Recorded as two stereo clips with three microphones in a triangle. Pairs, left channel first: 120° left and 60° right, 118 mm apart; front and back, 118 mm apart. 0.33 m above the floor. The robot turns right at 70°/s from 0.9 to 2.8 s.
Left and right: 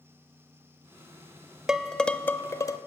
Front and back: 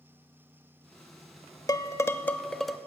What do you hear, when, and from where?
1.7 s dishes clattering: 20° left, 0.6 m; by 2.8 s 95° left, 0.6 m